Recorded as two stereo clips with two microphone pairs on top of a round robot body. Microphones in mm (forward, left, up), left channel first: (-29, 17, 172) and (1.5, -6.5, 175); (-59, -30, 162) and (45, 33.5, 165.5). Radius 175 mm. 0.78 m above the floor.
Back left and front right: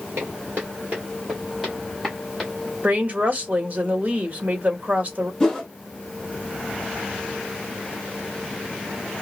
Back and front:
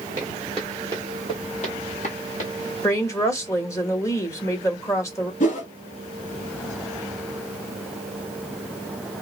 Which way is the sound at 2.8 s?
85° right.